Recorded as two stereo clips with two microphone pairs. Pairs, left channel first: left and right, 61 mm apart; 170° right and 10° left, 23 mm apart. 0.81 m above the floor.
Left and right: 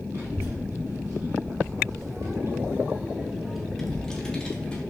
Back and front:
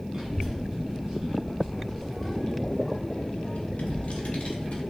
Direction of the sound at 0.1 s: 50° right.